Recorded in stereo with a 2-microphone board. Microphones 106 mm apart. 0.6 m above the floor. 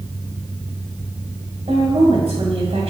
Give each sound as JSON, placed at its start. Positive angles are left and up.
{"t": 1.7, "sound": "a woman speaking", "side_deg": -70, "distance_m": 2.0}